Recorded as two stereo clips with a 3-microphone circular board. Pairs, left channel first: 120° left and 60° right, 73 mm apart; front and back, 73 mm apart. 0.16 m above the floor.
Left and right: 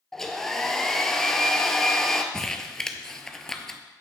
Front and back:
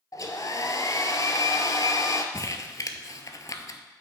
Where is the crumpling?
35° left, 0.7 m.